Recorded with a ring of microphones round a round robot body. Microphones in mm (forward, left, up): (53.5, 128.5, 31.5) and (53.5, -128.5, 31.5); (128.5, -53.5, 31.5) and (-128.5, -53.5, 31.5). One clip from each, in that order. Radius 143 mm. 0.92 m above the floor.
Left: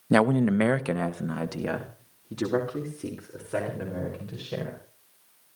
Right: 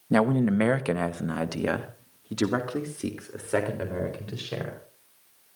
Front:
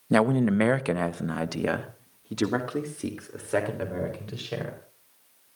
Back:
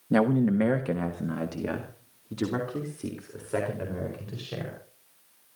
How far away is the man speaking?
About 1.1 m.